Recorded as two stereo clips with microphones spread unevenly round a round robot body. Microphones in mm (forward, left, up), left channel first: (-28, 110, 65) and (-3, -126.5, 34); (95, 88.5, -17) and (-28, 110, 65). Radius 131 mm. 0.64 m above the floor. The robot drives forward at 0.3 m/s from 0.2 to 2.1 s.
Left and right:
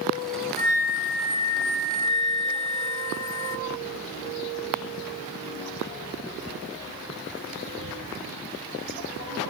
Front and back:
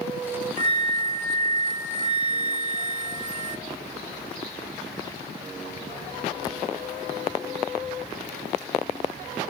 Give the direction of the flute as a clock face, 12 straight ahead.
7 o'clock.